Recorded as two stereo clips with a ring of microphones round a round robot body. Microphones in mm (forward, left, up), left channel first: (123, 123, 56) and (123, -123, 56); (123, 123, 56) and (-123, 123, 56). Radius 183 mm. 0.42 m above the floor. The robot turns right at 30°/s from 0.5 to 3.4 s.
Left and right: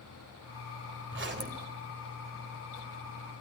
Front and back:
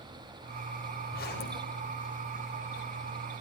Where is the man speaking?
No man speaking in this recording.